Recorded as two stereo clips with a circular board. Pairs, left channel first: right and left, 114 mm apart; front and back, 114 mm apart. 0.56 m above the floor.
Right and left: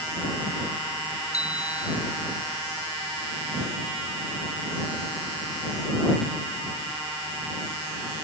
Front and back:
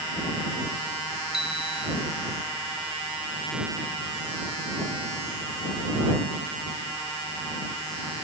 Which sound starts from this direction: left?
A bicycle bell, at 1.3 s.